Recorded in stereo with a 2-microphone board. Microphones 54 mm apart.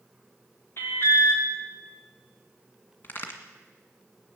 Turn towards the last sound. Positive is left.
turn(degrees=40)  # may be behind; listen again after turning